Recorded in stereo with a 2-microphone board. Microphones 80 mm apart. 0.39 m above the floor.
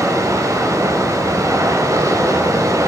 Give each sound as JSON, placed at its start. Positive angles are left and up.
{"t": 0.0, "sound": "running water", "side_deg": -45, "distance_m": 0.8}